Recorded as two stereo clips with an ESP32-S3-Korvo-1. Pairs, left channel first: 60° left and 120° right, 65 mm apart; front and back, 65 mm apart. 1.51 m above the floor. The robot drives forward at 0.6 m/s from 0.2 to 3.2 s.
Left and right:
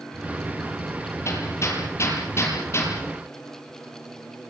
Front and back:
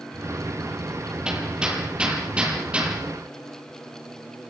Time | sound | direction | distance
1.2 | hammering | 105° left | 9.5 m